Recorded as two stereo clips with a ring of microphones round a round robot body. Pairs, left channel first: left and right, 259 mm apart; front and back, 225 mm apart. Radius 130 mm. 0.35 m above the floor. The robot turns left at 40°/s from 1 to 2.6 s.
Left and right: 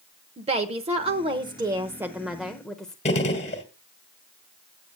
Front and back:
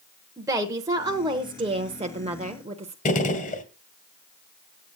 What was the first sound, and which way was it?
A woman speaking, 120° right.